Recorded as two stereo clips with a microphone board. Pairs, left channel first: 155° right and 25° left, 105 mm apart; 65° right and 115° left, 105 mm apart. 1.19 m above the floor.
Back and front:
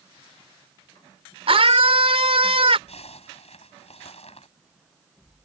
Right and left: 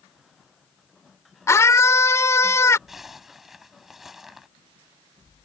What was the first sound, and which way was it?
A scream, 5° right.